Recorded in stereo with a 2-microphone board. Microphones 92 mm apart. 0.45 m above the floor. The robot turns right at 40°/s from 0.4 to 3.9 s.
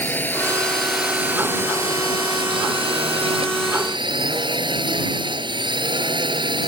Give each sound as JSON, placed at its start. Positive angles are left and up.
{"t": 0.0, "sound": "a drone", "azimuth_deg": 160}